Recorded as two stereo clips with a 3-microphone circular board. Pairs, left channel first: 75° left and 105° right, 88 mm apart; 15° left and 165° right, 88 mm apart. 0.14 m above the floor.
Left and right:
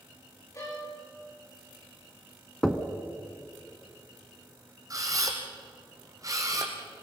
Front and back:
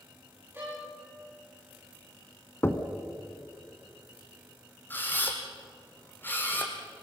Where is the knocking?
Straight ahead, 1.2 m.